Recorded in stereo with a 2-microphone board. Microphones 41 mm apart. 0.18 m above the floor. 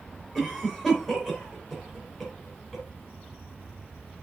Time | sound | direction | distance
0.3 | a cough | 5° left (ahead or behind) | 3 m